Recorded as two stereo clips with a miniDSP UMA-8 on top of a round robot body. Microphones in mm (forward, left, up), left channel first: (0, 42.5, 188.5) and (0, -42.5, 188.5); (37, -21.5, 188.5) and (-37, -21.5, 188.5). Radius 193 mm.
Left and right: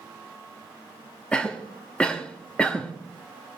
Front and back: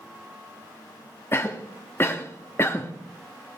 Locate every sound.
1.3 s a cough: 20° left, 1.2 m